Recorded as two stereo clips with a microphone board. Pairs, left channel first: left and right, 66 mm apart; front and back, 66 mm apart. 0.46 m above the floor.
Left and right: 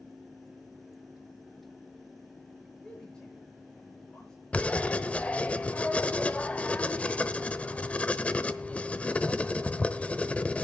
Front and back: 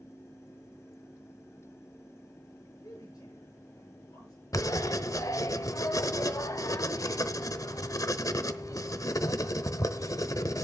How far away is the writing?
About 0.9 m.